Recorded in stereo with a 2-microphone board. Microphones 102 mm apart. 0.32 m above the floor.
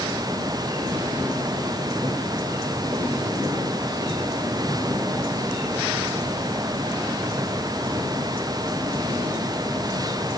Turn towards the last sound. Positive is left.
No sound to turn to.